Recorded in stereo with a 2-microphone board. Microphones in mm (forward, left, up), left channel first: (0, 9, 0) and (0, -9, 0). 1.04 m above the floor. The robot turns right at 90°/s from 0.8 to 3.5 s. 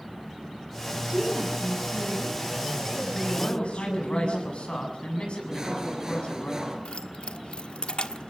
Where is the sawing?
25° right (ahead or behind), 5 m.